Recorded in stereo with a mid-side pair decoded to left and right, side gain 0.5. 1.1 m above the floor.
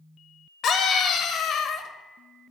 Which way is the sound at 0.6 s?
60° left.